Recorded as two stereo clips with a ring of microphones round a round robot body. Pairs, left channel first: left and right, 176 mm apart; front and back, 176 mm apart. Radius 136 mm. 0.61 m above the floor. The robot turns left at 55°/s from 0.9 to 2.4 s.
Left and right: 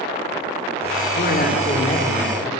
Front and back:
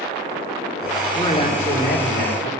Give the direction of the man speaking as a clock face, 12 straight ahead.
10 o'clock.